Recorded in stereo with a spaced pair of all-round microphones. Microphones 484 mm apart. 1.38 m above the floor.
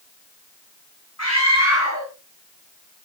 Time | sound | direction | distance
1.2 | a scream | 30° left (ahead or behind) | 5 m